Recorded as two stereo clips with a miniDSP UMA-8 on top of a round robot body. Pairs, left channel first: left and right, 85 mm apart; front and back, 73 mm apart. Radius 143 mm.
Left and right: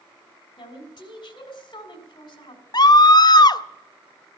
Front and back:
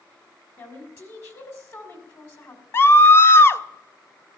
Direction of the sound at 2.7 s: 55° left.